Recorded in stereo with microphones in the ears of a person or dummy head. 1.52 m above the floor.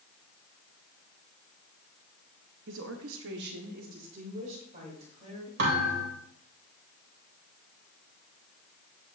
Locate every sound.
2.7 s a woman speaking: 55° right (ahead or behind), 0.8 m; by 5.5 s 40° right (ahead or behind), 4 m
5.6 s a thud: 70° right (ahead or behind), 3 m